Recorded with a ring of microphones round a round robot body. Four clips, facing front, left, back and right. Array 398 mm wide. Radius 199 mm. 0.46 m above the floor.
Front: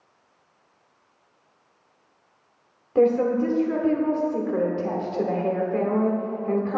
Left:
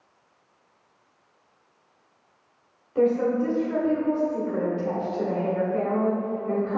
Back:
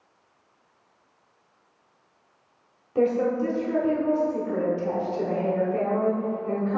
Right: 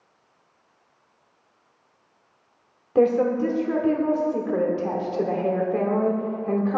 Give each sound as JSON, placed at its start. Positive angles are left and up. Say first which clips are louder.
{"t": 3.0, "sound": "a woman speaking", "louder": "right 2 dB, front 3 dB", "azimuth_deg": -65, "distance_m": 1.4}